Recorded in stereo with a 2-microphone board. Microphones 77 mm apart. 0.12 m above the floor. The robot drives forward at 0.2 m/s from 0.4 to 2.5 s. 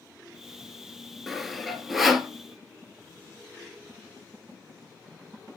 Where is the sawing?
Centre (ahead or behind), 0.9 m.